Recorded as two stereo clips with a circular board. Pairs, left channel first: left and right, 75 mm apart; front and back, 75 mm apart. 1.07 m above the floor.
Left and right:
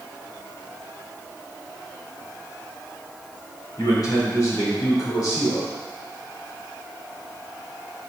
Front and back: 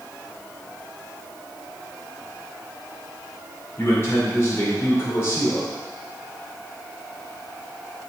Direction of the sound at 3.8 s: 55° left.